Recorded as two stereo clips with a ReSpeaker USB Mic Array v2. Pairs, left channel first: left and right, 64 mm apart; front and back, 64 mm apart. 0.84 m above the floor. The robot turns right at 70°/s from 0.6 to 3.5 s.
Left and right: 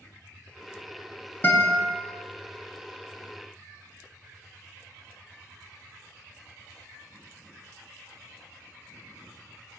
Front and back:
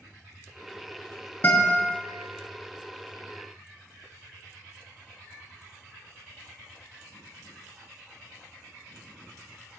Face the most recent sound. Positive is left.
turn(degrees=-175)